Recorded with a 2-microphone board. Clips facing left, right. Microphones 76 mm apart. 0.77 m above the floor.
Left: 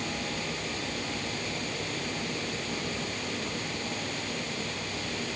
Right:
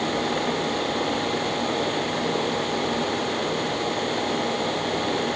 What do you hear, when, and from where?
Only background noise.